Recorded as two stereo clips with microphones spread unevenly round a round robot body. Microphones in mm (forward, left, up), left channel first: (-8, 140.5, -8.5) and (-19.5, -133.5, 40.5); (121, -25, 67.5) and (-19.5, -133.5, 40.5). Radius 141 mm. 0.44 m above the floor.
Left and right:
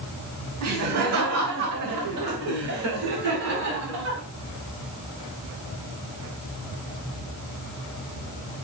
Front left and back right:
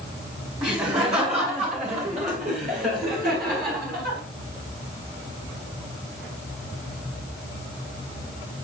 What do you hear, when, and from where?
0.6 s laughter: 90° right, 2 m; by 4.2 s 125° right, 4 m